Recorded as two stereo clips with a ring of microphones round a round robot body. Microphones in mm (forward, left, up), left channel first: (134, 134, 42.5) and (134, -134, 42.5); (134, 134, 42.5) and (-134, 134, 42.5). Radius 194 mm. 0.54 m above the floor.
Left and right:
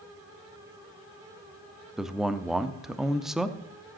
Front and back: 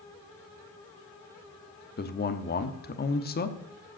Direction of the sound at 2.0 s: Straight ahead.